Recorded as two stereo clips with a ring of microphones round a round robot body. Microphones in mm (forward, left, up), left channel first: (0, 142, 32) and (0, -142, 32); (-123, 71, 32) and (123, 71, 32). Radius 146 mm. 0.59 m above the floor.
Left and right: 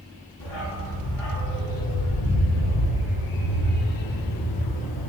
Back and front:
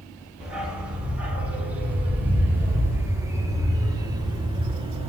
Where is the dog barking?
85° left, 4.5 m; by 5.1 s 70° left, 2.5 m.